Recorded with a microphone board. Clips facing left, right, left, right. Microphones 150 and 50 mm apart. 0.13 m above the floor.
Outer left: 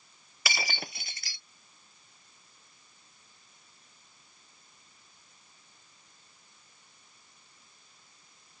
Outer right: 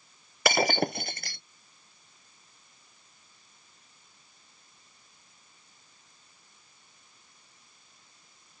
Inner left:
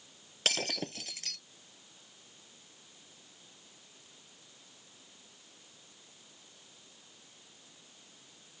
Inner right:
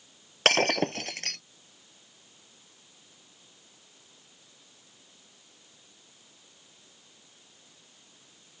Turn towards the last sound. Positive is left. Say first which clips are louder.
# outer right 13 dB, inner right 11 dB
turn(degrees=-55)  # may be behind; listen again after turning